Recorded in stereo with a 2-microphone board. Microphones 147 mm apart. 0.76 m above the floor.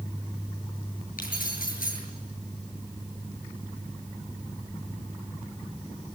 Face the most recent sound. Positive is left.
turn(degrees=75)  # may be behind; listen again after turning